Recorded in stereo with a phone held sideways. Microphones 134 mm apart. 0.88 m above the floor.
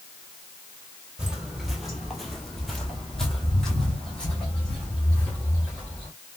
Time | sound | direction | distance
1.2 | footsteps | 5° right (ahead or behind) | 0.9 m